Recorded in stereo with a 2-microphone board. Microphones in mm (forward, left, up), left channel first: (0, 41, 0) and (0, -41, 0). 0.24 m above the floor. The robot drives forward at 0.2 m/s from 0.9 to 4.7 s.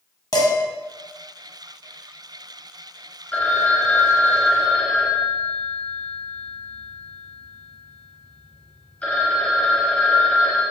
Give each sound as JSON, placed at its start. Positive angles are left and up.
{"t": 0.3, "sound": "dishes clattering", "side_deg": 50, "distance_m": 0.9}
{"t": 3.3, "sound": "a phone ringing", "side_deg": 20, "distance_m": 0.5}